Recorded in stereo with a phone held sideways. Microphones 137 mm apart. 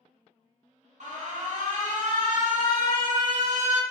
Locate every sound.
1.0 s an alarm: 60° right (ahead or behind), 0.6 m